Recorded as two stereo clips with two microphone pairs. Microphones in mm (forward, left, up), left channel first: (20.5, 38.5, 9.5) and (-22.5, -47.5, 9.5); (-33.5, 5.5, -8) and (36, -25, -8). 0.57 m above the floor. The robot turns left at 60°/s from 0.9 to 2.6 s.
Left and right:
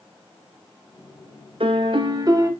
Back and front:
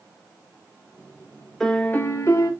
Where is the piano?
120° right, 0.5 m; by 2.5 s 170° right, 0.5 m.